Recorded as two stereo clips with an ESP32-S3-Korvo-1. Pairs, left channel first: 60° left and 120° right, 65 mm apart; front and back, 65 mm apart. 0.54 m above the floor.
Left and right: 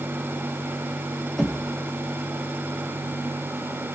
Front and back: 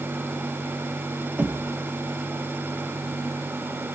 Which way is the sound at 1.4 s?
140° left.